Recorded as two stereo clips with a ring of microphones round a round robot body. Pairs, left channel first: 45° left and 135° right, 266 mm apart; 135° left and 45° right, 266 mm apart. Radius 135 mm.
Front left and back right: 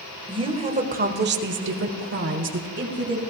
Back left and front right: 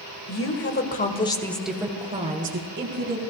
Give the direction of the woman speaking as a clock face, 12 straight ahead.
7 o'clock.